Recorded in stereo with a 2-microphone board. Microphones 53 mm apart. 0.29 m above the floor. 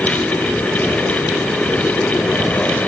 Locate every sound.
Only background noise.